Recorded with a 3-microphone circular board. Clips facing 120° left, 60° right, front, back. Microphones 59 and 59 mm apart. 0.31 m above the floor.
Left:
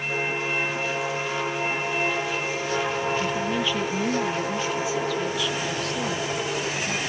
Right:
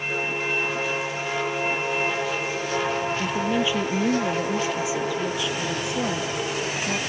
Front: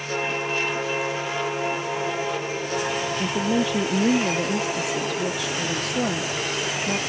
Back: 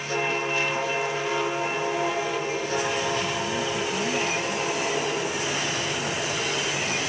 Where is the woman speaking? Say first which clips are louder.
Right 1 dB, front 4 dB; 15° left; by 7.0 s 10° left.